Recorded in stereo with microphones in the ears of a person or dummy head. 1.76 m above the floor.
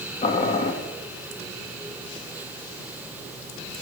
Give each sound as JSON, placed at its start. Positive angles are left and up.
{"t": 0.2, "sound": "boiling", "side_deg": 35, "distance_m": 2.0}